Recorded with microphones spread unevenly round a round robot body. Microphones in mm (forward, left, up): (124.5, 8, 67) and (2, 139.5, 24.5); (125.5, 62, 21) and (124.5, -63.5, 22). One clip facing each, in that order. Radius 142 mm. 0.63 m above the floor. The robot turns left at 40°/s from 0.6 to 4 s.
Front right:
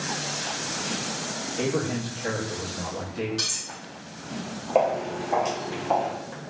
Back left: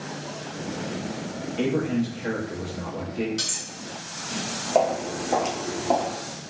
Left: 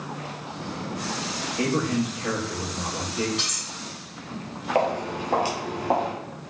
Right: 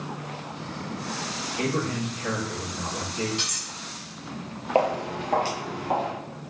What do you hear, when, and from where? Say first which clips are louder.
1.6 s a man speaking: back left 3 dB, left 3 dB; 130° left, 1.1 m; by 3.3 s 65° left, 1.1 m
3.4 s cutlery clinking: even, left 1 dB; 160° right, 0.6 m; by 3.7 s 170° right, 0.6 m
4.8 s footsteps: even, right 1 dB; 80° right, 0.6 m; by 6.1 s 115° left, 0.8 m